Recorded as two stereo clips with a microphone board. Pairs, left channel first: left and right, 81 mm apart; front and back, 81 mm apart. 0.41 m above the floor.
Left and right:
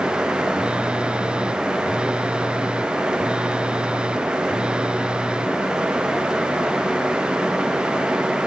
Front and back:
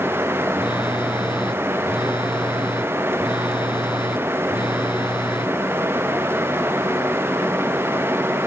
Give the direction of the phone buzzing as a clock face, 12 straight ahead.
12 o'clock.